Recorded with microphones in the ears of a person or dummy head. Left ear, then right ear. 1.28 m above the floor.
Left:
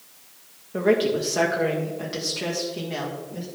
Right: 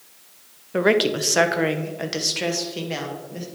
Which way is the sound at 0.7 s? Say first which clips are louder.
Right 2 dB; 45° right (ahead or behind).